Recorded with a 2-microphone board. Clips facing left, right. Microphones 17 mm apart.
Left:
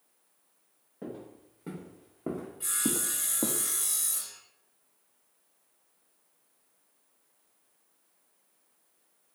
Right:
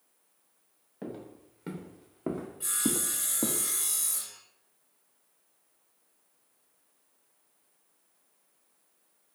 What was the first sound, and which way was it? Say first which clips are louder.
Footsteps: right 1 dB; 50° right (ahead or behind).